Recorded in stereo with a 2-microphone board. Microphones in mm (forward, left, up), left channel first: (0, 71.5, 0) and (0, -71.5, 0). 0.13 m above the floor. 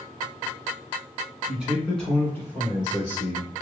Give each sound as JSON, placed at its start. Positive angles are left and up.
{"t": 1.5, "sound": "a man speaking", "side_deg": -10, "distance_m": 1.2}